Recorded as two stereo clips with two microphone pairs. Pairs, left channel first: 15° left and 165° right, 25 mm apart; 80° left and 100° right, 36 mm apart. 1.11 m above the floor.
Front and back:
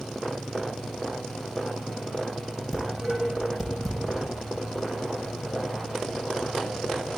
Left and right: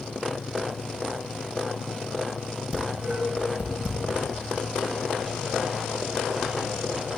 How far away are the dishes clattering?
About 6.5 m.